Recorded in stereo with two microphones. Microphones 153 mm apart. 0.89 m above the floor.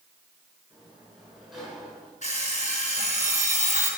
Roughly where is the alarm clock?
Left.